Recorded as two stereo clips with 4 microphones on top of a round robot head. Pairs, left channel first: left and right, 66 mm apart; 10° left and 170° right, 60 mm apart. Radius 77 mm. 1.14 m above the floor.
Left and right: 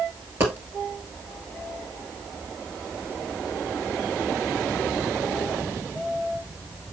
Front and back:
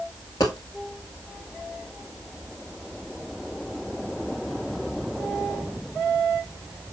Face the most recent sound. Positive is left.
turn(degrees=-40)